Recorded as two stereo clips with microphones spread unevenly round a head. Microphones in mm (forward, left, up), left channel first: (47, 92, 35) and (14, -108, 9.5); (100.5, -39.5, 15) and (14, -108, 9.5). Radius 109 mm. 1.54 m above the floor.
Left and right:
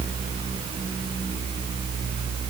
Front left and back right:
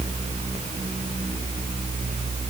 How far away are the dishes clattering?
No dishes clattering in this recording.